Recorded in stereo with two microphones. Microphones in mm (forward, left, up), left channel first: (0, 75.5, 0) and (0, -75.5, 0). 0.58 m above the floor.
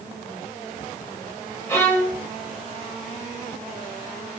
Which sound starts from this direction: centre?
A violin, at 1.7 s.